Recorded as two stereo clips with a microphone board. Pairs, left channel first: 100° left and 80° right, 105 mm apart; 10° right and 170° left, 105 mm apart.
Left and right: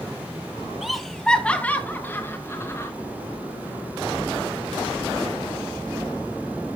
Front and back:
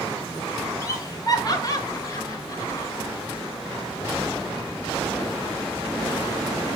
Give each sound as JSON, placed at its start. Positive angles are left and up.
{"t": 0.8, "sound": "laughter", "azimuth_deg": 5, "distance_m": 1.6}